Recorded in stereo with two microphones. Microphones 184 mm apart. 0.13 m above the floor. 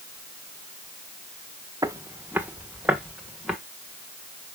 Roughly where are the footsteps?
Centre.